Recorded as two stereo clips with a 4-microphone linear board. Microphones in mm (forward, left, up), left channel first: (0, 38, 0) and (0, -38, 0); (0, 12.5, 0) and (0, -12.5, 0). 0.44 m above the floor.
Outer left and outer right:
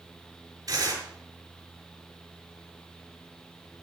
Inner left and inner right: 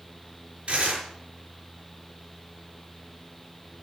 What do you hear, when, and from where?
0.7 s tearing paper: 50° right (ahead or behind), 6 m